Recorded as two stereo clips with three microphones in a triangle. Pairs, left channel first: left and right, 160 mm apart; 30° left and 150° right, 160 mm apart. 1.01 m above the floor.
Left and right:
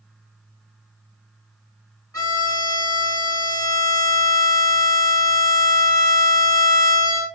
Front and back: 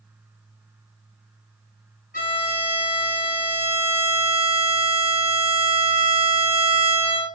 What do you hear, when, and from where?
2.1 s a violin: 20° left, 1.1 m